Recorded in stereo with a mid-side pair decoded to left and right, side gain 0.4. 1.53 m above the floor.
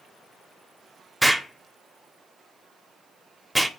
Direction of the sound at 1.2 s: 15° right.